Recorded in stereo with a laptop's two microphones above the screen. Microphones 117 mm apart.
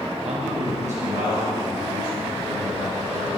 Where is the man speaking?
70° right (ahead or behind), 0.7 m; by 3.3 s 85° right, 2.5 m.